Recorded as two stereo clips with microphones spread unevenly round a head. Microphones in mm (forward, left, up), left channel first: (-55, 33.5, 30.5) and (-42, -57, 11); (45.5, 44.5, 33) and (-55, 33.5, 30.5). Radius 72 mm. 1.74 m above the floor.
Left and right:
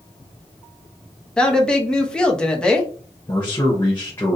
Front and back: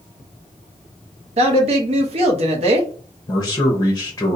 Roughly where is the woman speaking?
Behind.